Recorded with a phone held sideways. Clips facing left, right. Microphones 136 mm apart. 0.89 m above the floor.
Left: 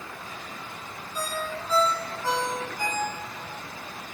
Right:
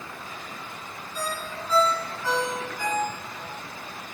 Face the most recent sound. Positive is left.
turn(degrees=40)  # may be behind; listen again after turning